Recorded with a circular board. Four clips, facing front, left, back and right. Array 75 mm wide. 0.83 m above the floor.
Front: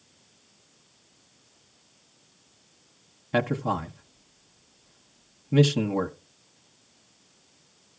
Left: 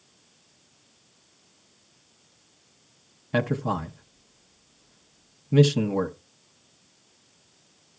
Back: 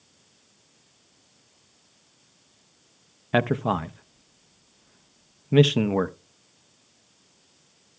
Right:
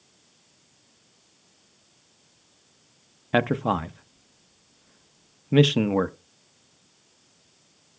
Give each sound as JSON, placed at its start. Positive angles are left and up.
{"t": 3.3, "sound": "a man speaking", "azimuth_deg": -130, "distance_m": 0.7}